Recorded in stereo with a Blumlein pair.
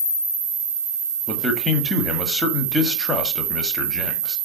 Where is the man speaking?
5° left, 1.2 m.